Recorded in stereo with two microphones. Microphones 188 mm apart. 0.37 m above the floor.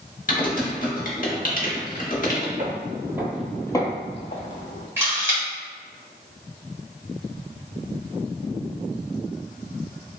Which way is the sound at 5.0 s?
15° right (ahead or behind).